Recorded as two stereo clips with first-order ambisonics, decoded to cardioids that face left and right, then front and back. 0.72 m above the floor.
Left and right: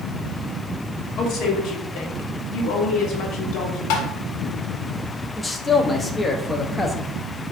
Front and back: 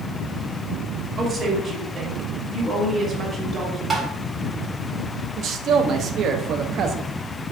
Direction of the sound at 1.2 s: 110° left.